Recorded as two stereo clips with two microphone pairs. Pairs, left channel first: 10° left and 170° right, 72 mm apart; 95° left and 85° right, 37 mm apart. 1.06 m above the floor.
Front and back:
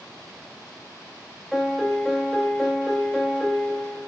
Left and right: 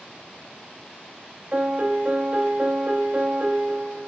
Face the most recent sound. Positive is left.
turn(degrees=-85)